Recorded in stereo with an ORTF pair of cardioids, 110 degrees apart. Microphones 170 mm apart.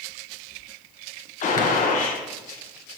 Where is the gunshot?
50° left, 1.2 m.